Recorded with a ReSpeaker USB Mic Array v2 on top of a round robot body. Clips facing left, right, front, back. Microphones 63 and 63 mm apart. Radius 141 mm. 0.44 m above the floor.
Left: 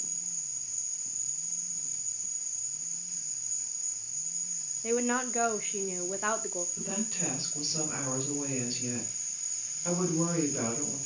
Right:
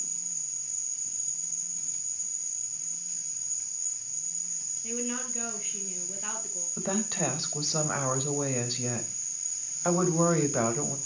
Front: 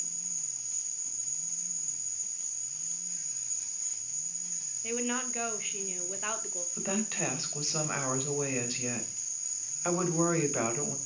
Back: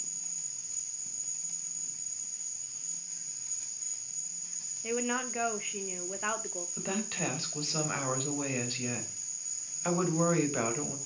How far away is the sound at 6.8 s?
About 3 m.